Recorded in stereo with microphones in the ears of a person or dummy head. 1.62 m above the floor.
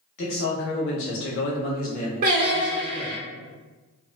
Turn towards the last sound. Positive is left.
turn(degrees=-50)  # may be behind; listen again after turning